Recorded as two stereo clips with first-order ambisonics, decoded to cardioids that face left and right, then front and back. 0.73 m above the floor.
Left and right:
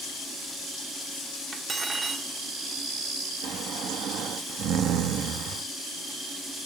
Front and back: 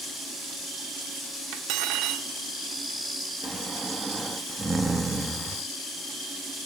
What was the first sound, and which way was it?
Cutlery clinking, 160° right.